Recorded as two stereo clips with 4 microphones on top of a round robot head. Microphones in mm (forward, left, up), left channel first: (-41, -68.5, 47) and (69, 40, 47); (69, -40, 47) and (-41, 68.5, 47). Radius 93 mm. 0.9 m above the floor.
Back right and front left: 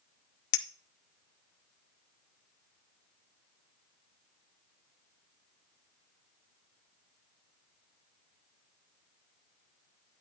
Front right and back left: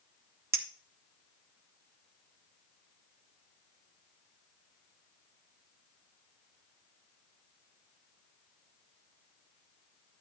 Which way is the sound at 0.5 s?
150° right.